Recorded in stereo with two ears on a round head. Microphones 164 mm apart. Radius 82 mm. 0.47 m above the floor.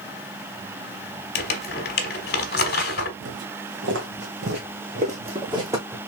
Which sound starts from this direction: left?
Crumpling, at 1.4 s.